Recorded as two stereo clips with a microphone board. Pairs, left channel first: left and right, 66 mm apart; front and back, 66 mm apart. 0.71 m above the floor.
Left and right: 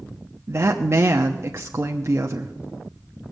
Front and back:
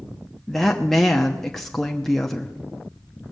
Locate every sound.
0.5 s a woman speaking: 80° right, 0.8 m